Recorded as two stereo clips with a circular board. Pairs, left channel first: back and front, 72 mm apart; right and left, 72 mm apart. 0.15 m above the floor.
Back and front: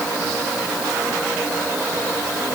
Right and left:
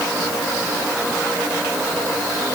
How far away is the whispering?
I don't hear whispering.